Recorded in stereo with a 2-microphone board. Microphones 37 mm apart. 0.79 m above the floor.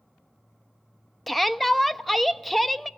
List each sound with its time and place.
1.3 s a shout: centre (ahead or behind), 0.6 m